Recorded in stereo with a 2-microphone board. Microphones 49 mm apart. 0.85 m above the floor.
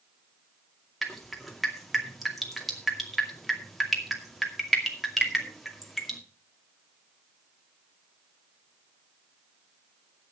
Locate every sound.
1.0 s dripping: centre (ahead or behind), 2 m